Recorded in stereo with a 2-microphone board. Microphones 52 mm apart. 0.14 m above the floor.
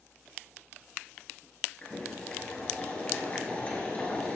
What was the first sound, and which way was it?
Boiling, 30° left (ahead or behind).